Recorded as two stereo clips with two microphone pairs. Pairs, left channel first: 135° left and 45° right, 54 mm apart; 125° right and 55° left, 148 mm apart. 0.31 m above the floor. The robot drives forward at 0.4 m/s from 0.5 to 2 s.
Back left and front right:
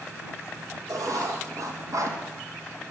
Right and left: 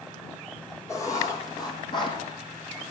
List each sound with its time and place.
0.9 s writing: 55° right, 1.8 m; by 2.2 s 65° right, 1.6 m